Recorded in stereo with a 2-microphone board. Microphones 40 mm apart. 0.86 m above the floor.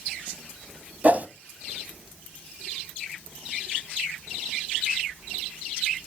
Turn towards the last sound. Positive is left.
turn(degrees=-40)  # may be behind; listen again after turning